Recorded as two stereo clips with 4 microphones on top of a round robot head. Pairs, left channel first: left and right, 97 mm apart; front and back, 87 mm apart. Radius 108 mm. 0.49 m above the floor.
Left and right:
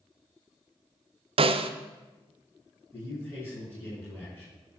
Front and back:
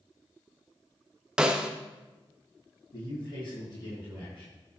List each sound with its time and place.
1.4 s a snare drum: 100° right, 0.7 m
2.9 s a man speaking: 20° left, 6 m